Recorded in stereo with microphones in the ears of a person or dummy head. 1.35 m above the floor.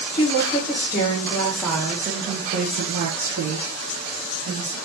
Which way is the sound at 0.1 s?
35° left (ahead or behind).